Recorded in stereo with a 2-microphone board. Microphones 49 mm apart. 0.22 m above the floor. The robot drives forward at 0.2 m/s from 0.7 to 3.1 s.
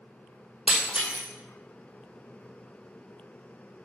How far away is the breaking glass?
About 2.5 m.